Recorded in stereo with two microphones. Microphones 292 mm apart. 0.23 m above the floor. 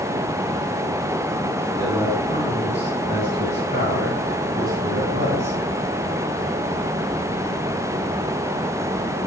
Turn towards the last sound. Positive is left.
turn(degrees=-20)  # may be behind; listen again after turning